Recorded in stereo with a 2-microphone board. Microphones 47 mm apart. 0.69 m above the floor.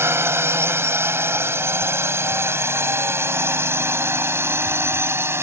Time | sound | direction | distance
0.0 | a drone | 65° right (ahead or behind) | ?